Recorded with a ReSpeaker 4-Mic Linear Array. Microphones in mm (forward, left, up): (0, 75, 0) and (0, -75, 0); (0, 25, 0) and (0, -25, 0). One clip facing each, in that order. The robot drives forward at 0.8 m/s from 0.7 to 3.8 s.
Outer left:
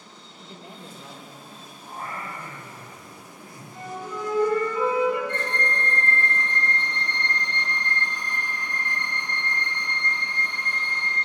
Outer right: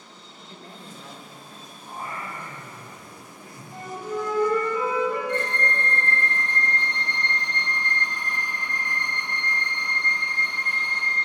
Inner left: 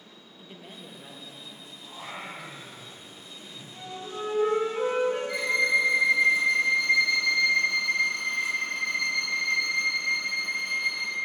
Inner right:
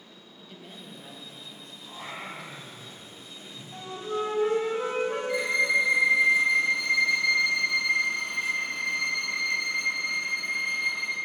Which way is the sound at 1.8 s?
15° right (ahead or behind).